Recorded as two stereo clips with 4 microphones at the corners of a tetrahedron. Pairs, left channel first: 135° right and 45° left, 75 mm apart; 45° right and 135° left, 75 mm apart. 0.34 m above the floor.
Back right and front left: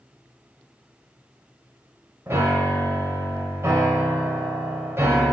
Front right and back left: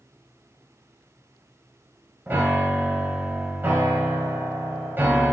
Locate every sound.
2.3 s a piano: 85° left, 1.0 m